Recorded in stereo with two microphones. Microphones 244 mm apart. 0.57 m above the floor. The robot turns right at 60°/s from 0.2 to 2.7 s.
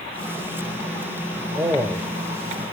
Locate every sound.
1.6 s a man speaking: 15° right (ahead or behind), 2.5 m; by 2.6 s 40° left (ahead or behind), 2.5 m